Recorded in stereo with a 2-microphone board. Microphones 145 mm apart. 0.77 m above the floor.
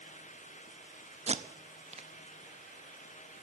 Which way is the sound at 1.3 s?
45° right (ahead or behind).